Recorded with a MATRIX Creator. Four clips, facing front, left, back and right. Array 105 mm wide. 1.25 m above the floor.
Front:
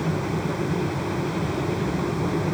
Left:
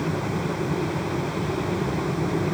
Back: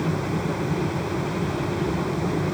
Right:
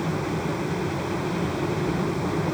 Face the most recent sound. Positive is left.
No sound to turn to.